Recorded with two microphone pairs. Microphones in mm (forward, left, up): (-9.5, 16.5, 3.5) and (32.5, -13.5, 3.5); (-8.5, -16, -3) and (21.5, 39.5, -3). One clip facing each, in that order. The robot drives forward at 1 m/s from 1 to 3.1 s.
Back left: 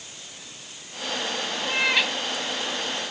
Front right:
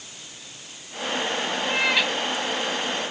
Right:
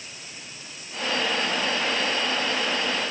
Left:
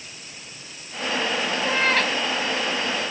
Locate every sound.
1.6 s a cat meowing: 55° left; by 2.1 s 60° left